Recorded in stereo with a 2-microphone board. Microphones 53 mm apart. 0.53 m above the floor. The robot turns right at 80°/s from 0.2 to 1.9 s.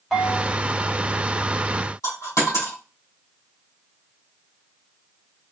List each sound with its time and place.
0.1 s a bell: 5° left (ahead or behind), 1.3 m; by 0.5 s 20° left (ahead or behind), 1.3 m
2.0 s a dropped coin: 80° left, 2.5 m